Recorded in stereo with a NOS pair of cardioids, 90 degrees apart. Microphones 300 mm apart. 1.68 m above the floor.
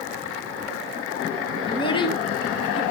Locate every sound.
1.7 s a child speaking: 15° left, 2 m